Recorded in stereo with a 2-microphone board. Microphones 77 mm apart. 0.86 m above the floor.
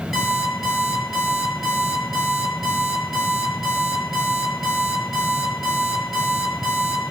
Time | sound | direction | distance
0.1 | an alarm clock | 5° right (ahead or behind) | 9 m